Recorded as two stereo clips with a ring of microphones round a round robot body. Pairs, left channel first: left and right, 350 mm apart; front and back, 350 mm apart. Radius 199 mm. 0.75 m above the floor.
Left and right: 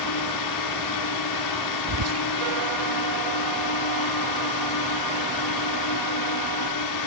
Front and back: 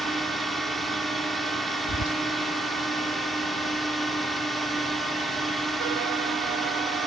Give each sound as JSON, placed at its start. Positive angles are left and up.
{"t": 0.0, "sound": "a drone", "azimuth_deg": 90}
{"t": 1.9, "sound": "whispering", "azimuth_deg": -45}